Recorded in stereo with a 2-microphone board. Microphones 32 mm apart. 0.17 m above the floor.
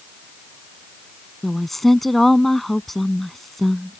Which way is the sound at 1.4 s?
10° left (ahead or behind).